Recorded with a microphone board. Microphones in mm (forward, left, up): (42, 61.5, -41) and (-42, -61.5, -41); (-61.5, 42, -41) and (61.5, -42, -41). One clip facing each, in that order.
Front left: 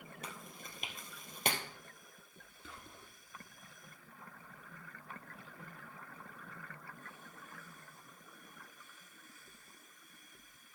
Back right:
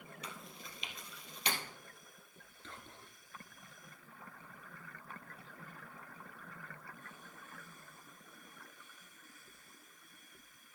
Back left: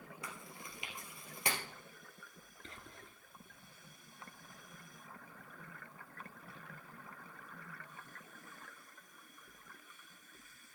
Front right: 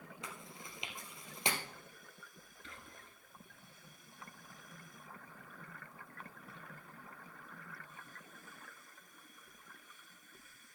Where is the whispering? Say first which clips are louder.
Back right 1 dB, back left 2 dB; 130° left, 1.8 m.